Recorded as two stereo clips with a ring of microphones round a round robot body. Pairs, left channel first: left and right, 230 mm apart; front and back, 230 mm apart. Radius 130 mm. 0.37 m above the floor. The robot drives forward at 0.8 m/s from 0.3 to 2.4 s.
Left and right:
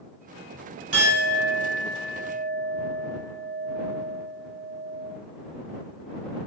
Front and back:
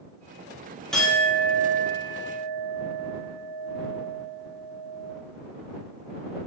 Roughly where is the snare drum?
No snare drum in this recording.